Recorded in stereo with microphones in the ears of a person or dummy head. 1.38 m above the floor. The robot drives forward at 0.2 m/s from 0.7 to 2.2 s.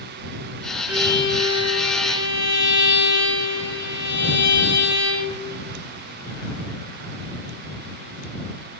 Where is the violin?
5° right (ahead or behind), 1.9 m.